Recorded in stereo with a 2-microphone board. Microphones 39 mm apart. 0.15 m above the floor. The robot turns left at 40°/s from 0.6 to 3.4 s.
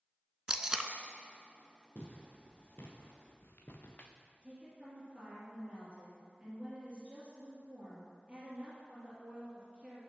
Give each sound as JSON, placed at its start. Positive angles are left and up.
{"t": 0.5, "sound": "tape being pulled", "side_deg": -20, "distance_m": 0.5}
{"t": 1.9, "sound": "footsteps", "side_deg": 35, "distance_m": 3.0}
{"t": 4.4, "sound": "a woman speaking", "side_deg": -25, "distance_m": 2.5}